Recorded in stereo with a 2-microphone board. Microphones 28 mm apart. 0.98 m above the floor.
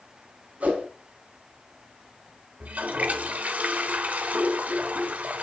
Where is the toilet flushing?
65° right (ahead or behind), 1.7 m.